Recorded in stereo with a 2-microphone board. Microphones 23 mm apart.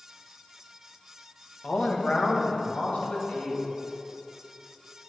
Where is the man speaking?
80° left, 1.5 m; by 3.7 s 85° left, 2.5 m.